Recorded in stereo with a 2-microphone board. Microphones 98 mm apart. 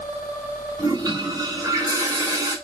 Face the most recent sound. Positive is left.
turn(degrees=-40)  # may be behind; listen again after turning